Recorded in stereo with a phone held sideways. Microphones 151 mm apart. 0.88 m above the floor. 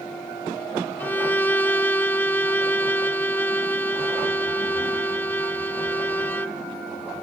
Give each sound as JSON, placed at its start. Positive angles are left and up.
{"t": 1.0, "sound": "a violin", "side_deg": 10}